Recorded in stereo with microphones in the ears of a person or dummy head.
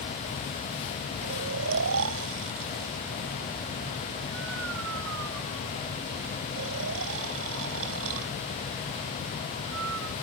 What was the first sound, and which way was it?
Snoring, 75° right (ahead or behind).